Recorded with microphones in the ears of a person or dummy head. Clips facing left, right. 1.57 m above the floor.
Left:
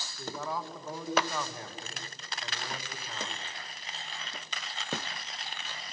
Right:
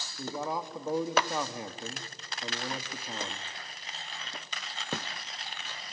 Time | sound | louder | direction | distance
0.2 | a man speaking | right 2 dB | 20° right (ahead or behind) | 0.9 m